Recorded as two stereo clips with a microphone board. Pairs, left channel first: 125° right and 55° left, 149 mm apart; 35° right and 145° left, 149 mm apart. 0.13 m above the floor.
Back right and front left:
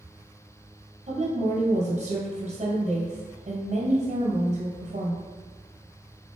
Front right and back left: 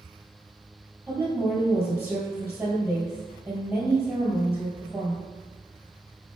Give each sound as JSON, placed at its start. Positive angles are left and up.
{"t": 1.1, "sound": "a woman speaking", "azimuth_deg": 70, "distance_m": 1.7}